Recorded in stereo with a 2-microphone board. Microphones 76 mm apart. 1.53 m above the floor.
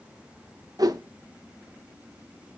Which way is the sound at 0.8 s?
55° right (ahead or behind).